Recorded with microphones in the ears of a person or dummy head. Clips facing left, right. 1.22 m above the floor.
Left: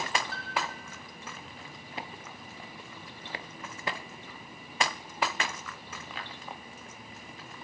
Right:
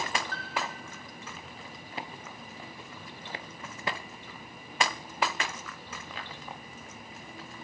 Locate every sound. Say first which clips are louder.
0.3 s a piano: even; 10° left (ahead or behind), 0.6 m